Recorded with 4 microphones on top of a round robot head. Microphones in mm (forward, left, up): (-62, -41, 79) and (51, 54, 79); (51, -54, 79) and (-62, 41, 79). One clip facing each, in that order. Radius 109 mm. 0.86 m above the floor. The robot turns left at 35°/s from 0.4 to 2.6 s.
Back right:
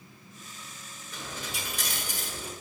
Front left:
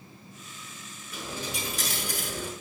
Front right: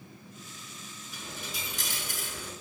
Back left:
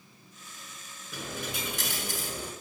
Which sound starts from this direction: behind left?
A dropped coin, at 1.1 s.